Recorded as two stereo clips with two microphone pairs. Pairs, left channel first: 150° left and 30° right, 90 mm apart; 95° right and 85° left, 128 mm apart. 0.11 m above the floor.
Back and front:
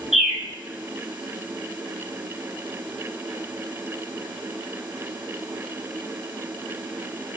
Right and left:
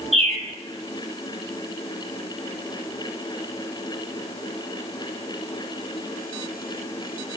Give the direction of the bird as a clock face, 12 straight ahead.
10 o'clock.